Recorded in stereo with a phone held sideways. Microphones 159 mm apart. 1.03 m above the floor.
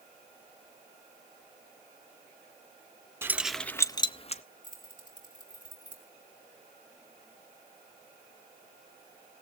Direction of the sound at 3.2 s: 15° right (ahead or behind).